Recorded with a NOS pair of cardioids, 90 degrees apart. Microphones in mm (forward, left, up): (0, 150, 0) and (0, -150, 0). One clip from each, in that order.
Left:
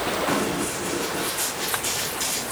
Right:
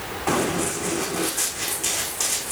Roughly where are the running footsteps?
Ahead right.